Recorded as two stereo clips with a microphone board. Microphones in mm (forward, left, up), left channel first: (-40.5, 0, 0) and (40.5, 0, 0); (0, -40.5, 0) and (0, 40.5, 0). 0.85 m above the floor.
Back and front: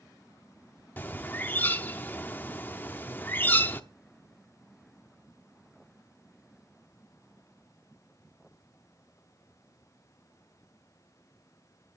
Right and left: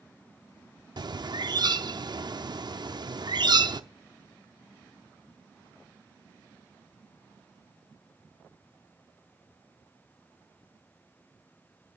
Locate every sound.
1.0 s a bird: 115° left, 0.7 m